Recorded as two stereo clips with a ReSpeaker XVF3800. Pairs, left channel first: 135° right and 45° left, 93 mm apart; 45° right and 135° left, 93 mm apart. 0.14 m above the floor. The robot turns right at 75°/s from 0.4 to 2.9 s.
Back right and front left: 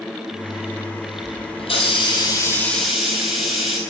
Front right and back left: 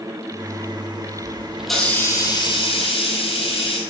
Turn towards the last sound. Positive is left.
turn(degrees=-45)